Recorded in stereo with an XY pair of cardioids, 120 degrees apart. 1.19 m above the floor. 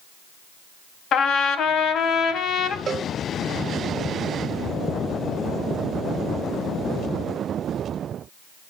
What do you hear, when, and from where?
1.1 s a trumpet: 60° left, 1.5 m
2.9 s a cowbell: 40° right, 1.0 m